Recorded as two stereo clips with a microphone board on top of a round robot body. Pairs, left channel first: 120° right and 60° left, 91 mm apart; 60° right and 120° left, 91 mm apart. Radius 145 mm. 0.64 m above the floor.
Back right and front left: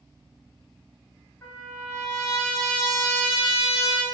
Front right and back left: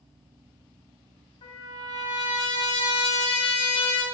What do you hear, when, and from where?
1.4 s a trumpet: 55° right, 0.6 m